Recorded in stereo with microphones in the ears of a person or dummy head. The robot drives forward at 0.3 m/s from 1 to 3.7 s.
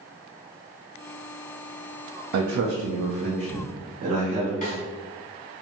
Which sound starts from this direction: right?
A man speaking, at 2.3 s.